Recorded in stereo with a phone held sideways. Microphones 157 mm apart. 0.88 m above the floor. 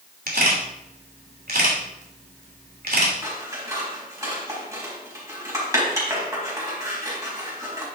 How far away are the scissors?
About 4 m.